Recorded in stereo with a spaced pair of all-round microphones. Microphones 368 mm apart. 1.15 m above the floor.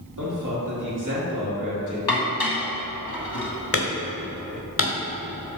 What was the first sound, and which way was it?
A man speaking, 55° right (ahead or behind).